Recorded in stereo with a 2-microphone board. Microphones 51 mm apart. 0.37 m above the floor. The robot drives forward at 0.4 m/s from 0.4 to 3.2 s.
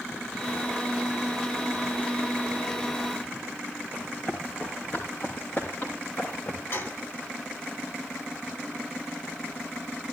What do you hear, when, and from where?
3.9 s running footsteps: 40° left (ahead or behind), 7.5 m; by 6.6 s 55° left (ahead or behind), 6.5 m
6.7 s a gunshot: 60° left (ahead or behind), 2 m